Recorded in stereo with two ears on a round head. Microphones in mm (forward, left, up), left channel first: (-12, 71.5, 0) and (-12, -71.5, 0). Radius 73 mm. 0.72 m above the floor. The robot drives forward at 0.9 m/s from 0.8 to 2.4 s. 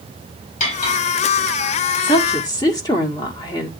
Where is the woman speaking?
30° left (ahead or behind), 1.6 m; by 3.7 s 25° left (ahead or behind), 1.8 m.